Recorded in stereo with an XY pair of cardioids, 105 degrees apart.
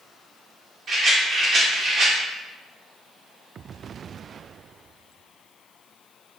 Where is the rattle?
55° right, 1.4 m.